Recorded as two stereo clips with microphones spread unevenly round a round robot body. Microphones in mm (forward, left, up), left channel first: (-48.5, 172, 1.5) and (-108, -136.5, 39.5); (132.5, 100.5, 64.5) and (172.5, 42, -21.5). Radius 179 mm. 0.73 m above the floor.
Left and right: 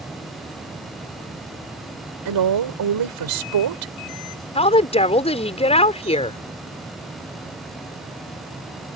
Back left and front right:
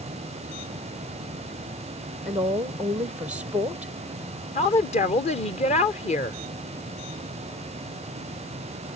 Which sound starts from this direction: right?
A woman speaking, at 2.2 s.